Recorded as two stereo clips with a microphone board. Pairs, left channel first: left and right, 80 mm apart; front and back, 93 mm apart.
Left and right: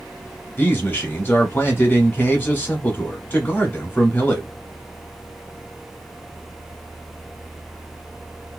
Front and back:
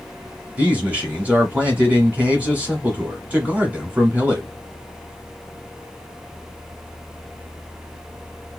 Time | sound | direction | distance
0.6 | a man speaking | 125° left | 1.8 m